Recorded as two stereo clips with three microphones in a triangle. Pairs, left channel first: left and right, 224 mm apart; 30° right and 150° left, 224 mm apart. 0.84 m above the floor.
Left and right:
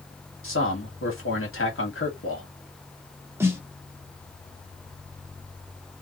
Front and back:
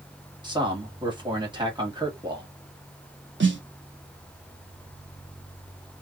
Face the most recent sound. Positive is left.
turn(degrees=-170)